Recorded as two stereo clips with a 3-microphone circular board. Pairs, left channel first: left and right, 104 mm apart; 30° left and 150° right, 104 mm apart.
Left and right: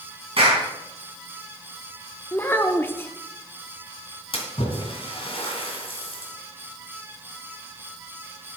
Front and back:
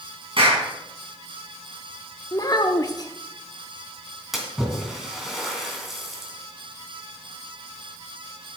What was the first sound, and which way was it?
A clap, 120° right.